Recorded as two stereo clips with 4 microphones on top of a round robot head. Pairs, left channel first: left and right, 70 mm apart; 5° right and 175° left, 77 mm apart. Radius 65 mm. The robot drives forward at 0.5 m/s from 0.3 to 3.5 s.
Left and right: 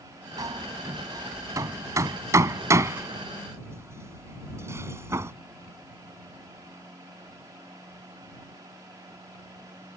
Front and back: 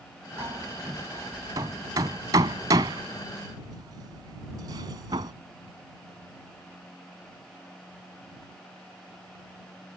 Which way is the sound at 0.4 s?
125° right.